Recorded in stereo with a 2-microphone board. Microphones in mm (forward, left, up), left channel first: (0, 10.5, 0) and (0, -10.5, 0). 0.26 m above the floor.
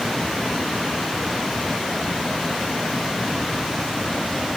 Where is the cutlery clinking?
No cutlery clinking in this recording.